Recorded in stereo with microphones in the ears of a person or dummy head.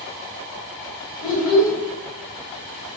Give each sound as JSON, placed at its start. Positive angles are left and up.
{"t": 1.2, "sound": "a child speaking", "side_deg": -5, "distance_m": 1.7}